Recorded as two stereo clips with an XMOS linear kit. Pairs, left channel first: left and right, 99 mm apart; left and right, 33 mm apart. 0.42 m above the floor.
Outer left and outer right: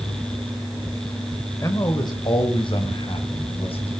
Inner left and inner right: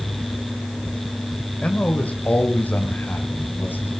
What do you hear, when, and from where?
1.6 s a man speaking: 35° left (ahead or behind), 2 m; by 3.9 s 70° left (ahead or behind), 4 m